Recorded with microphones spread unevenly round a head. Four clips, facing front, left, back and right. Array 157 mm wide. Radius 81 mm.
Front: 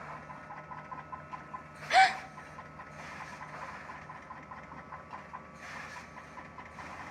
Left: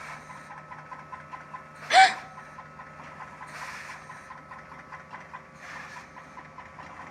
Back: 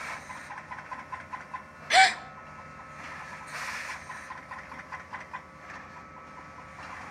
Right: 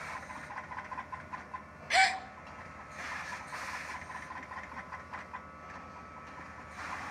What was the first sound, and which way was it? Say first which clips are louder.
A gasp: left 10 dB, back 2 dB; 115° left.